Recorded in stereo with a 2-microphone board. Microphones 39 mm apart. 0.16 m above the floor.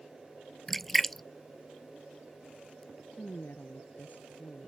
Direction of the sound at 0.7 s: 10° left (ahead or behind).